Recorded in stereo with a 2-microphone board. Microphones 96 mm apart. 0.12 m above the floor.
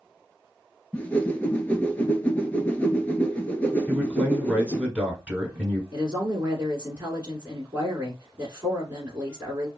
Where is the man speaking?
15° right (ahead or behind), 1.3 m.